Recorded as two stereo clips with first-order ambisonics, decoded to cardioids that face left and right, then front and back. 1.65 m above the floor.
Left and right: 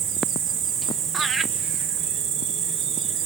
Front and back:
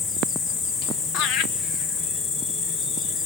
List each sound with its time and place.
0.0 s an insect: 45° right, 2 m
1.1 s laughter: 15° right, 1.0 m